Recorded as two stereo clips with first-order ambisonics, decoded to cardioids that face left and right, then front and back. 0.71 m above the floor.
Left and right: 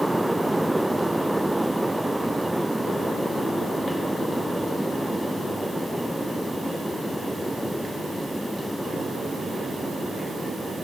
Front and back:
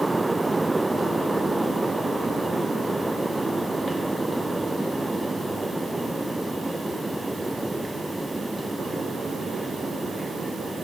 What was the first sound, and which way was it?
Only background noise.